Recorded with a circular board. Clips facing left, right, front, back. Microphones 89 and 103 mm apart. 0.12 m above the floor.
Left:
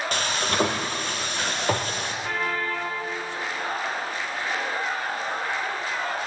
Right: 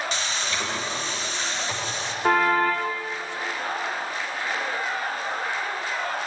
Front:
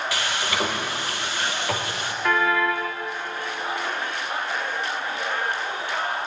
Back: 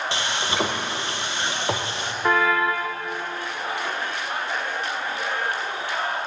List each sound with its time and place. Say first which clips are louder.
0.1 s frying: left 4 dB, back 1 dB; 120° left, 3.5 m
2.2 s a car horn: right 10 dB, back 1 dB; 115° right, 4.5 m